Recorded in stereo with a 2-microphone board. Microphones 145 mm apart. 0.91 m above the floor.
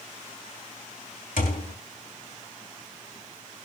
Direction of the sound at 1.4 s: 75° left (ahead or behind).